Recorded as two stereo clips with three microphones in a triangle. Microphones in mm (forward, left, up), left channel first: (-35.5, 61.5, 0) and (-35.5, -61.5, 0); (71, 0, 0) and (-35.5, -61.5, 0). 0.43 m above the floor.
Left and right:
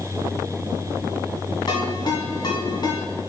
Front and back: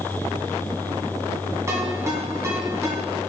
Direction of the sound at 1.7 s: 145° left.